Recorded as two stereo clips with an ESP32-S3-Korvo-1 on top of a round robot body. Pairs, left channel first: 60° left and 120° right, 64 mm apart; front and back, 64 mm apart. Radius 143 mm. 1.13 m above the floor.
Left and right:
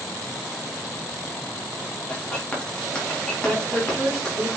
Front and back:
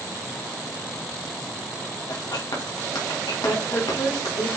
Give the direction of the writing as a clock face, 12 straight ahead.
1 o'clock.